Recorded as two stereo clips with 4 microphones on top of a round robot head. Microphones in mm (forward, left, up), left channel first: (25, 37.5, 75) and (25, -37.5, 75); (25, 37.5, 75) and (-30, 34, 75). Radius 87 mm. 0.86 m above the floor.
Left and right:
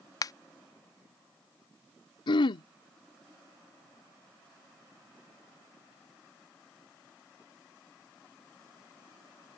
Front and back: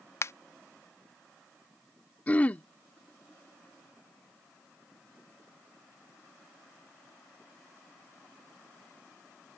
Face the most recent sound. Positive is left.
turn(degrees=70)